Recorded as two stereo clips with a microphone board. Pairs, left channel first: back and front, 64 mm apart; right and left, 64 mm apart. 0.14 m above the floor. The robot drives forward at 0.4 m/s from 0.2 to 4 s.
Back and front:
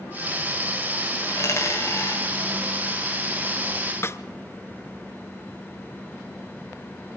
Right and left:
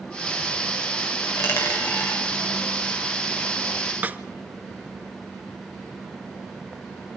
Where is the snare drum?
145° left, 1.0 m.